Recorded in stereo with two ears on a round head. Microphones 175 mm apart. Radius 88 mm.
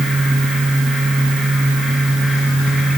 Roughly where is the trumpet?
I don't hear a trumpet.